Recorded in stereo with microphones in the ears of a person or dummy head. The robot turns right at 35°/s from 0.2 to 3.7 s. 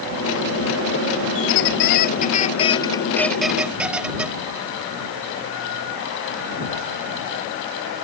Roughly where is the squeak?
Left.